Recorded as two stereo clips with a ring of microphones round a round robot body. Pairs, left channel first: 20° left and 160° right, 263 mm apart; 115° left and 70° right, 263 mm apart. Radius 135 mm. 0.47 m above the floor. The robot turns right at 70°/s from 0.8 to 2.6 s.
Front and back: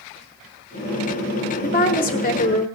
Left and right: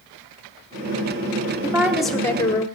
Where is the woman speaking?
5° right, 1.0 m; by 2.6 s 60° left, 1.0 m.